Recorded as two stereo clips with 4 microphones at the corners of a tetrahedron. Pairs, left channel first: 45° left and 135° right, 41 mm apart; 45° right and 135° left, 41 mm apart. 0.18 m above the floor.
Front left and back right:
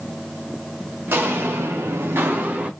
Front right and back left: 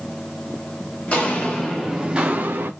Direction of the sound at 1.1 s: 100° right.